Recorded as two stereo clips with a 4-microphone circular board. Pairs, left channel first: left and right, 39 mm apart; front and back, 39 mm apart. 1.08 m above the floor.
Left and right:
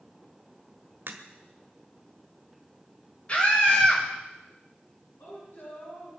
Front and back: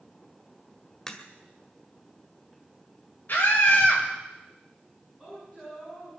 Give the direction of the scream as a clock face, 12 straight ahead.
11 o'clock.